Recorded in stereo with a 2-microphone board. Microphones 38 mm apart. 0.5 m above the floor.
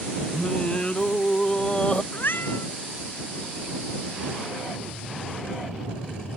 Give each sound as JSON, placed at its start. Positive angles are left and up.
{"t": 0.3, "sound": "singing", "side_deg": 30}
{"t": 2.1, "sound": "a cat meowing", "side_deg": 70}